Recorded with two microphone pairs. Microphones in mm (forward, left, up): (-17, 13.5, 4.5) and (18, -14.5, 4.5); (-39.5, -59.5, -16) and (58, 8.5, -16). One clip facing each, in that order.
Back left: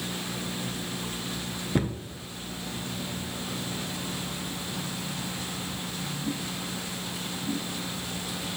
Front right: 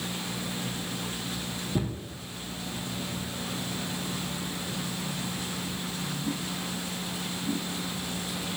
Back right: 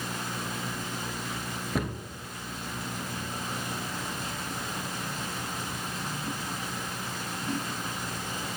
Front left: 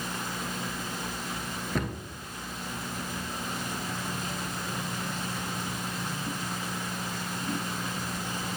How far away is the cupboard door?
About 0.7 m.